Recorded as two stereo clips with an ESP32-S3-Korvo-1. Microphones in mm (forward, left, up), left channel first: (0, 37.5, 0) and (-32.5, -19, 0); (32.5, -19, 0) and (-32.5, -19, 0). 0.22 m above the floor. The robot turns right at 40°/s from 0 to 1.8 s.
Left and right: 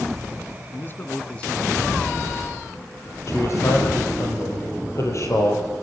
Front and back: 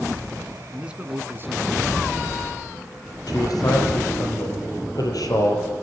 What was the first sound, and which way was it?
A man speaking, 100° left.